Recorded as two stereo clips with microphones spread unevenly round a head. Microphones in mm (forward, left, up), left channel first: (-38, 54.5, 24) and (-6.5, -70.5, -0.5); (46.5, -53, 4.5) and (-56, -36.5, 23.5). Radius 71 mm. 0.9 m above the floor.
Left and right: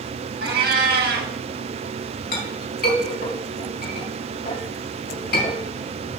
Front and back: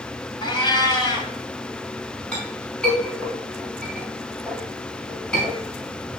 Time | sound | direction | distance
0.4 | a cat meowing | 60° right | 2.5 m
2.3 | a clink | 75° left | 4 m